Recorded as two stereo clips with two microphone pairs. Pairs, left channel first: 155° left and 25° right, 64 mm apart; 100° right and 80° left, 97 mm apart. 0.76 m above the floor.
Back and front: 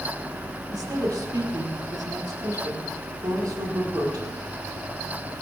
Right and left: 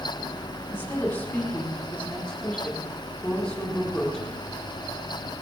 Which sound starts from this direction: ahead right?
A woman speaking, at 0.7 s.